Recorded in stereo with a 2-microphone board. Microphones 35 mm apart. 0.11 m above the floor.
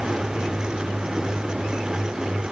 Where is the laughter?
I don't hear laughter.